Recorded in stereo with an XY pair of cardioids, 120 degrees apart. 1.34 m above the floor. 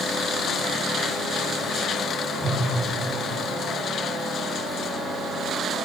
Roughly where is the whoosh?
Left.